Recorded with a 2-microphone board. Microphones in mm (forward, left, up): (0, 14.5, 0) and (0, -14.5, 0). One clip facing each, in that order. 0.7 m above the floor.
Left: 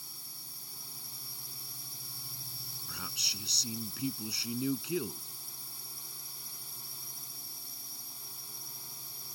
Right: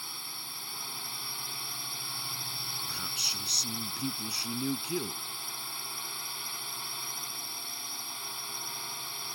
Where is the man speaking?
Centre (ahead or behind).